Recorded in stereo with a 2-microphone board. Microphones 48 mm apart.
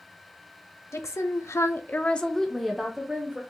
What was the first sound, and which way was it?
A woman speaking, 70° left (ahead or behind).